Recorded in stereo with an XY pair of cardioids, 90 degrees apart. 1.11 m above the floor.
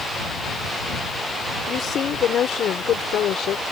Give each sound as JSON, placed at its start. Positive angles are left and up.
{"t": 1.7, "sound": "a woman speaking", "azimuth_deg": 65}